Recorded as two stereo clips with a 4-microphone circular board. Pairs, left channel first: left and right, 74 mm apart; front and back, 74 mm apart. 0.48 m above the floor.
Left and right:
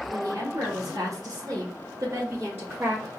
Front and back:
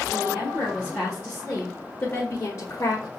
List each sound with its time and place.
0.1 s a woman speaking: 125° right, 1.6 m; by 3.1 s 30° right, 1.7 m